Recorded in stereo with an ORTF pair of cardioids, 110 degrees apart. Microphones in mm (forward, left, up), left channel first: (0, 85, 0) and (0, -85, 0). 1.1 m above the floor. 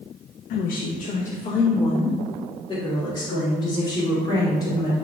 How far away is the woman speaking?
About 0.7 m.